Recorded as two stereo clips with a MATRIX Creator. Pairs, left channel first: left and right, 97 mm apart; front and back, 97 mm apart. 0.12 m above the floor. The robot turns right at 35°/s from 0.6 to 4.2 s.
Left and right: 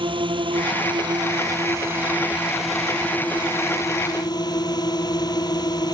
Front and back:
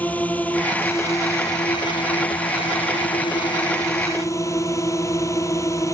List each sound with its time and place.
0.0 s a drone: 70° right; by 6.0 s 55° left